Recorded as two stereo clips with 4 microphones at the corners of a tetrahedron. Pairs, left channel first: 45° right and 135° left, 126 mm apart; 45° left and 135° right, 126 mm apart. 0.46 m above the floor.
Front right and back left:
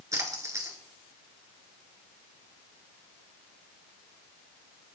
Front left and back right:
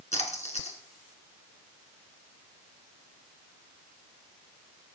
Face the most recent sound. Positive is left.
turn(degrees=70)